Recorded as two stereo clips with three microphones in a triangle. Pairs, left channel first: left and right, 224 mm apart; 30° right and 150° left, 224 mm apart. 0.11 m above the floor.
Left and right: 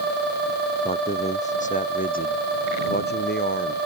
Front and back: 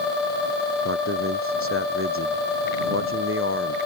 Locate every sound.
0.8 s a man speaking: 155° left; by 3.8 s 125° left